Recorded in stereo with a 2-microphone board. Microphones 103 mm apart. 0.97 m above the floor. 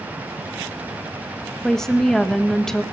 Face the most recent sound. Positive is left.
turn(degrees=5)  # may be behind; listen again after turning